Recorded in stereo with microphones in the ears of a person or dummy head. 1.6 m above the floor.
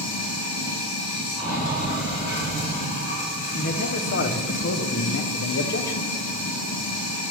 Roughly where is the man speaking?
Left.